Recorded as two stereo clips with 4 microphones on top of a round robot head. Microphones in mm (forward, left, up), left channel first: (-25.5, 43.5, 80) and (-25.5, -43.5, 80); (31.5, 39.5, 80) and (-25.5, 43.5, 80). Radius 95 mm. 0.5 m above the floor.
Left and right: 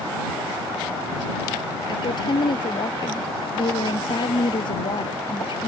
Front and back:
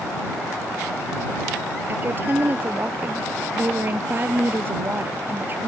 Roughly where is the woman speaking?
Behind left.